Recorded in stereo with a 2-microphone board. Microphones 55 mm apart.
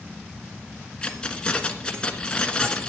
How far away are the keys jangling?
About 1.5 m.